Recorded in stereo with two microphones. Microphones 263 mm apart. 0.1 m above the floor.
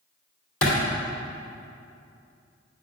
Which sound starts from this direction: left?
A clap, at 0.6 s.